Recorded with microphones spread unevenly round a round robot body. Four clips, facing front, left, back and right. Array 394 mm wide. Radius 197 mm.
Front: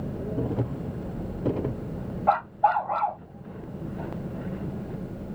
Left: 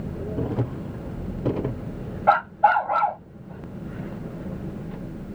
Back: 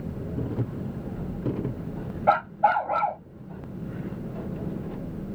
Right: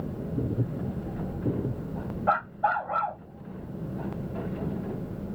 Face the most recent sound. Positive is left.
turn(degrees=165)